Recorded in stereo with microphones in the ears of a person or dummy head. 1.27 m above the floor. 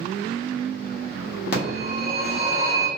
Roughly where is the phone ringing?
Left.